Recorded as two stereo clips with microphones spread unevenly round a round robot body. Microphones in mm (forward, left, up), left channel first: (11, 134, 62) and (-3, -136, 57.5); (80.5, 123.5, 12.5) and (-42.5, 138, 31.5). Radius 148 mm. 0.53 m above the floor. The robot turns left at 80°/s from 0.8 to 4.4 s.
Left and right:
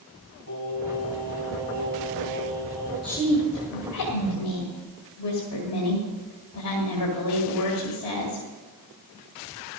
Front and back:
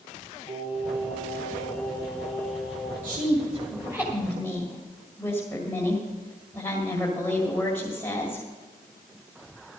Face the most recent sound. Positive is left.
turn(degrees=65)